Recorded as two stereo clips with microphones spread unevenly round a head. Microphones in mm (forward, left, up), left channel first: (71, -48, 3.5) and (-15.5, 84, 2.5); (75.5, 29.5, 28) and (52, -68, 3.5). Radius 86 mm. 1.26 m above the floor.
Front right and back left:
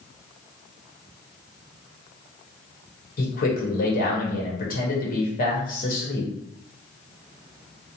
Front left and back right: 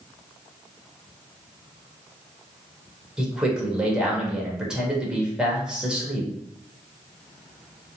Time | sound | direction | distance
3.2 | a man speaking | 25° right | 1.0 m